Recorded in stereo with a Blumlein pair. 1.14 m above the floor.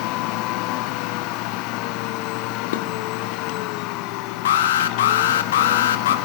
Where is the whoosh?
No whoosh in this recording.